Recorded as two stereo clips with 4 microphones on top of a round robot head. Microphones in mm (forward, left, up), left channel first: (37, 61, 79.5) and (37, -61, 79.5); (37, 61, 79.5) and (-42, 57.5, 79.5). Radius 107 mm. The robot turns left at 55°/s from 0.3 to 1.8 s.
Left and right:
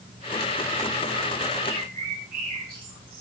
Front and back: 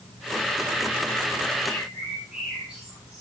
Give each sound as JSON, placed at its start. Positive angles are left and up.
{"t": 1.6, "sound": "a bird", "azimuth_deg": -85, "distance_m": 7.0}